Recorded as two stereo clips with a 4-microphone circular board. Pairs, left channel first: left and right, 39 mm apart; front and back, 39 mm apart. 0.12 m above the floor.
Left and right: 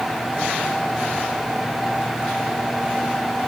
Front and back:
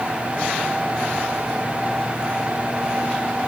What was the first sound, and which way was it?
Only background noise.